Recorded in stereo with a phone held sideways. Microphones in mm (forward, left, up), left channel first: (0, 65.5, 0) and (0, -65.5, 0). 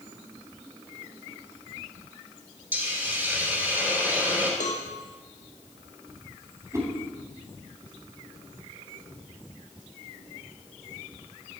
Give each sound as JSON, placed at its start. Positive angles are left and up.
{"t": 2.7, "sound": "a hiss", "side_deg": -15, "distance_m": 2.5}
{"t": 4.6, "sound": "a cowbell", "side_deg": 70, "distance_m": 1.2}
{"t": 6.7, "sound": "a whoosh", "side_deg": -25, "distance_m": 2.5}